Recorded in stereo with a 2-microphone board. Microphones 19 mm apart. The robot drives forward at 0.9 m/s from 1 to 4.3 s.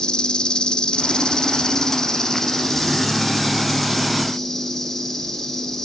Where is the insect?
50° left (ahead or behind), 1.4 m; by 5.9 s 15° left (ahead or behind), 4 m.